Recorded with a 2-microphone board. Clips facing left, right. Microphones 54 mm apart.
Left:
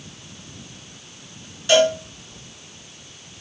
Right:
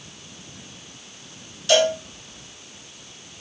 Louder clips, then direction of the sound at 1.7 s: Left 2 dB; 15° left (ahead or behind).